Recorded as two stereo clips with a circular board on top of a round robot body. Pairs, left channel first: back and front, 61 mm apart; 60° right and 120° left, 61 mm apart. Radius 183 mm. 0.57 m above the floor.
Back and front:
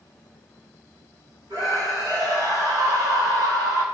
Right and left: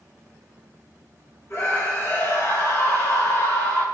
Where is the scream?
15° right, 5.5 m.